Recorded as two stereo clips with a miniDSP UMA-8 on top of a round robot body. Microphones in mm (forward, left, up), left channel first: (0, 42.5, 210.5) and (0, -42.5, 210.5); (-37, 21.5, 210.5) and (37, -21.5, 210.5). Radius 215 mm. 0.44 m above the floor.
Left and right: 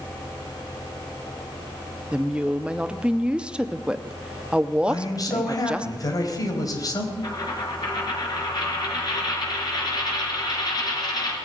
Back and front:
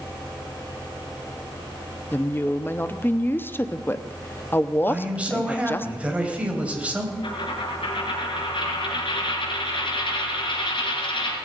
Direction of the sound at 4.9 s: 45° left.